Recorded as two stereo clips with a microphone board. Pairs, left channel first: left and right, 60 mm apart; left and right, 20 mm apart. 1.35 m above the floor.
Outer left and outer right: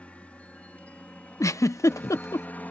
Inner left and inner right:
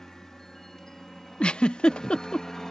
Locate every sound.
0.0 s a helicopter: 20° left (ahead or behind); by 2.7 s 30° left (ahead or behind)
1.4 s a giggle: 60° left (ahead or behind)